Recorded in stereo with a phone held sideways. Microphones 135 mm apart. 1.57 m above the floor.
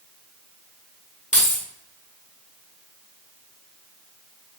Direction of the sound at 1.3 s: 60° left (ahead or behind).